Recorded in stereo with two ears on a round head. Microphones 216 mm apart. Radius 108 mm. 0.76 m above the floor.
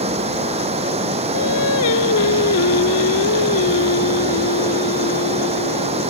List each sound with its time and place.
0.0 s running water: 25° right (ahead or behind)
1.3 s singing: 70° left (ahead or behind)